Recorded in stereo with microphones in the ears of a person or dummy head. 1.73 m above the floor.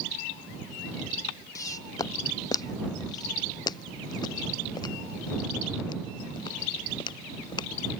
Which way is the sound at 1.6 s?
25° left (ahead or behind).